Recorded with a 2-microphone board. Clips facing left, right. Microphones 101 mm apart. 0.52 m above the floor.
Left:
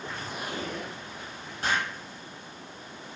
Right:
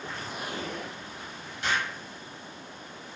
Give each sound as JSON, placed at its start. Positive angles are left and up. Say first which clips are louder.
{"t": 1.6, "sound": "an explosion", "louder": "left 1 dB", "side_deg": 40, "distance_m": 0.6}